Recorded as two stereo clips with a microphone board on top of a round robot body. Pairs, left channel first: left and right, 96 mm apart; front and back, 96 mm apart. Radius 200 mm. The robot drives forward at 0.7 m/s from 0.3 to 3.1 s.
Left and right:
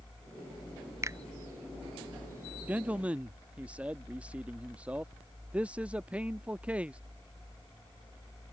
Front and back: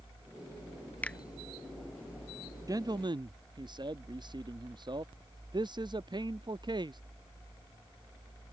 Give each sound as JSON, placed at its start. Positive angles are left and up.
{"t": 1.0, "sound": "a finger snap", "azimuth_deg": -60}
{"t": 2.7, "sound": "a man speaking", "azimuth_deg": -155}